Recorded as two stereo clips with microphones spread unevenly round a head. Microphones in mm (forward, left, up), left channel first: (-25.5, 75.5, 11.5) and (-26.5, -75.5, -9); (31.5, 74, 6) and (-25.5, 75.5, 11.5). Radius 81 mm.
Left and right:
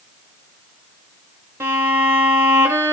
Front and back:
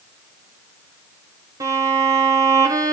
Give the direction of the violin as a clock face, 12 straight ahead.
6 o'clock.